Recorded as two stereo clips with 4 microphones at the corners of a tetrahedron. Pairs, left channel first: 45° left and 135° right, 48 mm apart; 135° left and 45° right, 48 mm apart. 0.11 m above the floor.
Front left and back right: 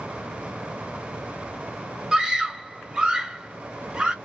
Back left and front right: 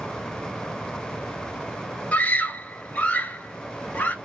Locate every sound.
2.1 s a scream: 165° left, 1.4 m